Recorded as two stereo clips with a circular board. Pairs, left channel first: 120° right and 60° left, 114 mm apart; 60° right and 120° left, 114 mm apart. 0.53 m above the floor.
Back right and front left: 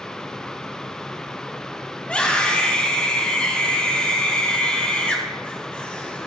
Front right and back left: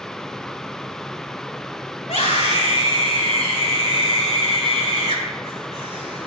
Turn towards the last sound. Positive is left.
turn(degrees=-40)